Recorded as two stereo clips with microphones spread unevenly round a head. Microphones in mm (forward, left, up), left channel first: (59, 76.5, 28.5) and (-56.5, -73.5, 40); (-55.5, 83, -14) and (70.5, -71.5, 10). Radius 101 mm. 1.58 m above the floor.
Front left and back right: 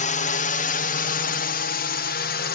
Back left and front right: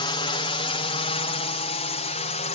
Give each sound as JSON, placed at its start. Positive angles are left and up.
{"t": 0.0, "sound": "a drone", "azimuth_deg": 75}